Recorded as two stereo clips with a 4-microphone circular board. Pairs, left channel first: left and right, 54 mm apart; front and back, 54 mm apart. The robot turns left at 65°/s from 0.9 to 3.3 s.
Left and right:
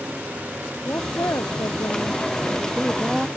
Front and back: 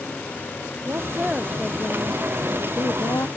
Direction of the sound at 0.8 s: 135° left.